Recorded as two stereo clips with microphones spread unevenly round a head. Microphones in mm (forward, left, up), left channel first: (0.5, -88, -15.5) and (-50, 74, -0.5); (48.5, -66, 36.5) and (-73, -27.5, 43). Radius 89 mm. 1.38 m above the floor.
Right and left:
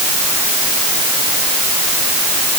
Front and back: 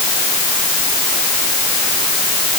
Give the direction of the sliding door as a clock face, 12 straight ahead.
No sliding door in this recording.